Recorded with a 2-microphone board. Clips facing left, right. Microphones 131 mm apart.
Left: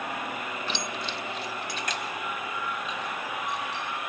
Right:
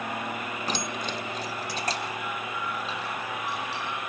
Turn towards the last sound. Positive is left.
turn(degrees=-30)  # may be behind; listen again after turning